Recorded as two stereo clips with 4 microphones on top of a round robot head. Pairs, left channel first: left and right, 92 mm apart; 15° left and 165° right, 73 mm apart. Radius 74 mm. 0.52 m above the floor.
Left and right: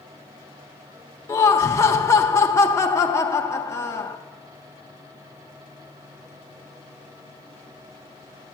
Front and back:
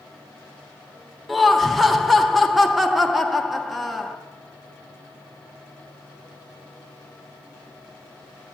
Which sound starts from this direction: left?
Laughter, at 1.3 s.